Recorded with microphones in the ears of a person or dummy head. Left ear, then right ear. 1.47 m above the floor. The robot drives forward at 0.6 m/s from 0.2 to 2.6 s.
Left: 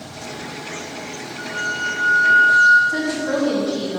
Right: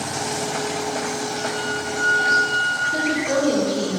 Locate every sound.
1.4 s a flute: 35° left (ahead or behind), 3 m; by 2.8 s 45° left (ahead or behind), 2.5 m
2.9 s a woman speaking: 75° left (ahead or behind), 4 m